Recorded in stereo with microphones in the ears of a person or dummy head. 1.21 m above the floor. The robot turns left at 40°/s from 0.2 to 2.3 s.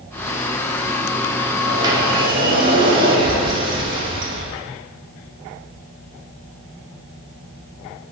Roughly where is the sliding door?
Centre.